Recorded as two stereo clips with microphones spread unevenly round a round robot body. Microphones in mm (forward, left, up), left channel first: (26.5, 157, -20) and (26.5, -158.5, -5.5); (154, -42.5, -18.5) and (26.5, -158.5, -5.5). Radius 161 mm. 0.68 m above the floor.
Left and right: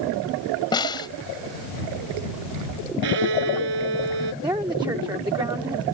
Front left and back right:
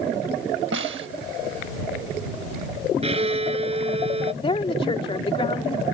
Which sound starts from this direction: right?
A violin, at 3.0 s.